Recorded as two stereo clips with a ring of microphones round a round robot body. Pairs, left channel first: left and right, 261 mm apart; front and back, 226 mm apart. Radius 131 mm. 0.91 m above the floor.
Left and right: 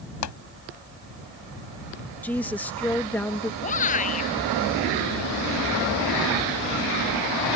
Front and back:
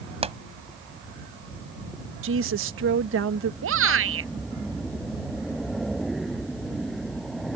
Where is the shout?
155° left.